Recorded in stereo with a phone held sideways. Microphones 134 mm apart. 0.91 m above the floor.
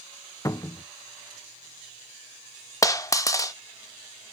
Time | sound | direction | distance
0.5 | a cupboard door | 25° left (ahead or behind) | 0.6 m
2.8 | a dropped coin | 25° left (ahead or behind) | 0.6 m